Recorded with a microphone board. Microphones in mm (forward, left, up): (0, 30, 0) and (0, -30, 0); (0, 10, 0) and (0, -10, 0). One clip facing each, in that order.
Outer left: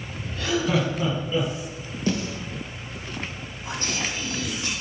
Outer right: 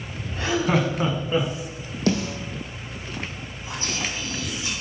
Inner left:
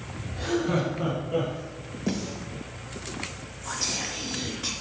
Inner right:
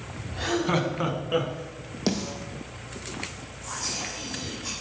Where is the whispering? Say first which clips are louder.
Outer left 1 dB, inner left 2 dB; 65° left (ahead or behind), 2.5 m.